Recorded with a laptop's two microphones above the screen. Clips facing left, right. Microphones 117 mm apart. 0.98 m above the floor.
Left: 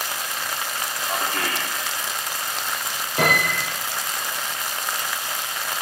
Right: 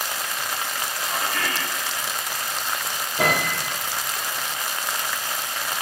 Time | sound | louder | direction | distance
1.1 | a man speaking | left 2 dB | 35° left (ahead or behind) | 2.5 m
3.2 | a piano | left 1 dB | 80° left | 4.5 m